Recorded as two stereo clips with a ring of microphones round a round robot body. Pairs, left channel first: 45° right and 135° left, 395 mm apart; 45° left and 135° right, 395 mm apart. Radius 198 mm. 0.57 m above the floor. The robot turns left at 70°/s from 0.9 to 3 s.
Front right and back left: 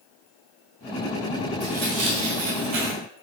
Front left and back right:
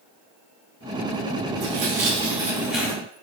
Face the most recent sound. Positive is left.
turn(degrees=120)